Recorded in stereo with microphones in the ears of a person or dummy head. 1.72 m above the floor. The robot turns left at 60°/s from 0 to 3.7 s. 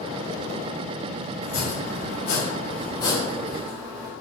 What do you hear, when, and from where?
1.4 s chopping: 125° left, 0.6 m; by 4.1 s 10° right, 0.6 m